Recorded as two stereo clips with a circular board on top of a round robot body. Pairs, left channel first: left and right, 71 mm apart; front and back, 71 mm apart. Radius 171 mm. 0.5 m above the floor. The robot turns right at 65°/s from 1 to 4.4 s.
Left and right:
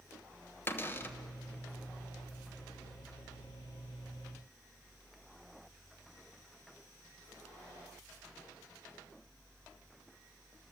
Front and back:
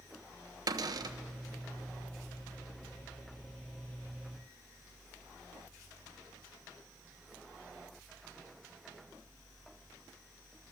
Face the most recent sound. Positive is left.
turn(degrees=10)